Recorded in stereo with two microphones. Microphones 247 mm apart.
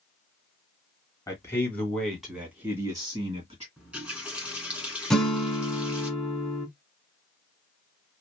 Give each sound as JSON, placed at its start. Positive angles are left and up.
{"t": 1.3, "sound": "a man speaking", "side_deg": 15, "distance_m": 1.8}
{"t": 3.8, "sound": "a running tap", "side_deg": -5, "distance_m": 1.2}
{"t": 5.1, "sound": "a guitar", "side_deg": 5, "distance_m": 0.8}